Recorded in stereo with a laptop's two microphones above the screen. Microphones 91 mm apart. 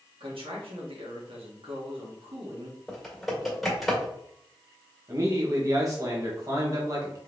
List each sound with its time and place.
0.2 s a man speaking: 80° right, 1.7 m
2.9 s typing on a keyboard: centre (ahead or behind), 2.0 m
5.1 s a man speaking: 40° right (ahead or behind), 1.3 m